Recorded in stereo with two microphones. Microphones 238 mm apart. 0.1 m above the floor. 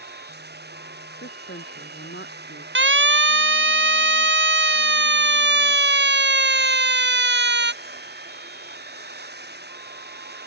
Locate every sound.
0.0 s running water: 45° right (ahead or behind)
1.2 s a woman speaking: 50° left (ahead or behind)
2.8 s a siren: 55° right (ahead or behind); by 7.7 s 50° right (ahead or behind)